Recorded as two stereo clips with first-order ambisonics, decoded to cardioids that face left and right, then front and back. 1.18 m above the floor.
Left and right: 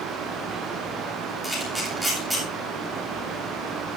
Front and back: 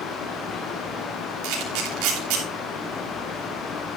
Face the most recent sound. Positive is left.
turn(degrees=-175)